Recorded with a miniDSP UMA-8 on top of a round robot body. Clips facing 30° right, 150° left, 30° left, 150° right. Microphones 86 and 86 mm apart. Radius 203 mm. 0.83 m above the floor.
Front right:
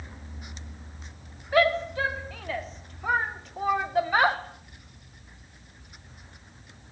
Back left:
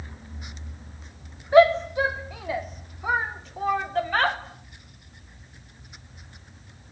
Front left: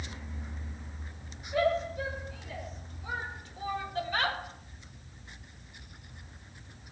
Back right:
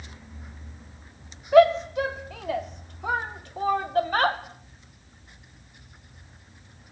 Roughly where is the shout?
Behind right.